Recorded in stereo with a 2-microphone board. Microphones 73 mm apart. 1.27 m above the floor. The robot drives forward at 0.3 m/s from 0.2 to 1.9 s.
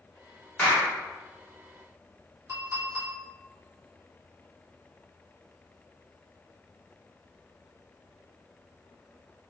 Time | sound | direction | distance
0.6 | a clap | 20° left (ahead or behind) | 1.0 m
2.5 | a clink | 40° right (ahead or behind) | 1.4 m